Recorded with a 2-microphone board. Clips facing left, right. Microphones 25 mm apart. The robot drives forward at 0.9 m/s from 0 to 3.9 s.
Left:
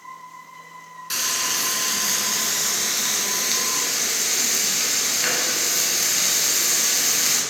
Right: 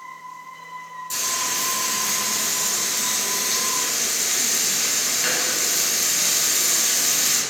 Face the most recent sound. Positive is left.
turn(degrees=25)  # may be behind; listen again after turning